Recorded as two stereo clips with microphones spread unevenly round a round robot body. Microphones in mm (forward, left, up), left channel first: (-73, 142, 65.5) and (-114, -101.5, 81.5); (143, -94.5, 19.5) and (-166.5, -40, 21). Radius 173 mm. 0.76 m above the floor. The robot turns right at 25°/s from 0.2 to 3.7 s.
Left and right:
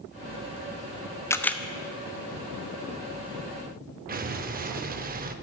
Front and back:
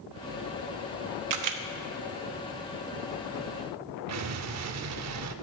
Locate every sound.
1.3 s a camera shutter: 155° left, 0.9 m; by 1.6 s 165° left, 0.9 m
4.1 s an explosion: 150° right, 0.7 m